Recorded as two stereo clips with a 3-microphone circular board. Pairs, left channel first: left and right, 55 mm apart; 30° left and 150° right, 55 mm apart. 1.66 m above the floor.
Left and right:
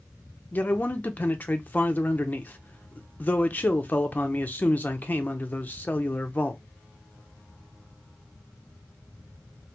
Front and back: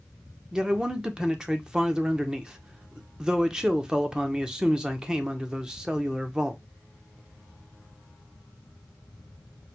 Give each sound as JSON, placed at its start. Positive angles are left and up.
{"t": 0.5, "sound": "a man speaking", "azimuth_deg": 140, "distance_m": 0.7}